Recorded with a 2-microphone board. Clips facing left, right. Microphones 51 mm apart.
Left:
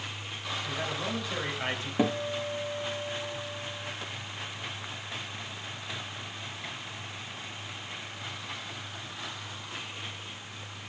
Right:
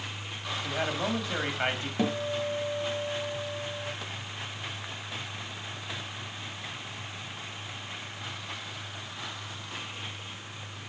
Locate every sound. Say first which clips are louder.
0.6 s a man speaking: right 5 dB; 40° right (ahead or behind), 2 m
2.0 s a guitar: left 1 dB; 20° left (ahead or behind), 0.9 m